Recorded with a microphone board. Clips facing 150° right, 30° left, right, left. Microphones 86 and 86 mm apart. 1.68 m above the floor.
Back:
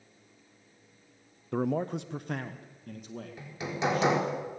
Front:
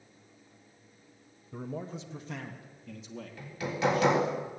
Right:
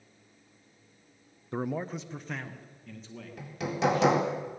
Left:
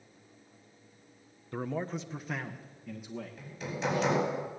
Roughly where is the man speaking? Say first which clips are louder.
Back 9 dB, right 2 dB; behind right.